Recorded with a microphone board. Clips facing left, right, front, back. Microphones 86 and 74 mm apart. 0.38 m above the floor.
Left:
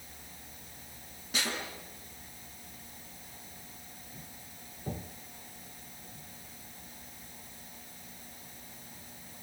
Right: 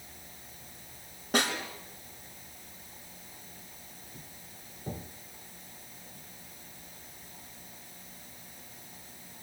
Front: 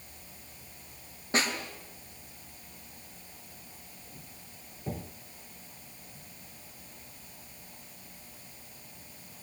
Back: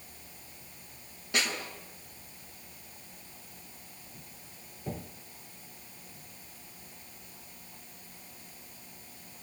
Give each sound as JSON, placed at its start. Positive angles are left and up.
{"t": 1.3, "sound": "a snare drum", "azimuth_deg": -55, "distance_m": 5.5}